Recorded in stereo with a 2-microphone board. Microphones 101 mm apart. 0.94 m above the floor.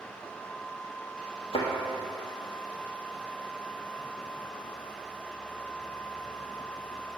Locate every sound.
1.5 s a thud: 70° left (ahead or behind), 2.5 m